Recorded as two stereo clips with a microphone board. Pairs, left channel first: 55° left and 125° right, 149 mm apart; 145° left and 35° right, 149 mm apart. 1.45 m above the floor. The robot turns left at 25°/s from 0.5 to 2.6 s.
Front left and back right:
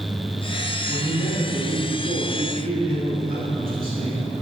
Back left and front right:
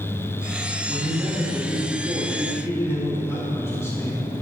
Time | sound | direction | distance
0.9 | a man speaking | 100° right | 3 m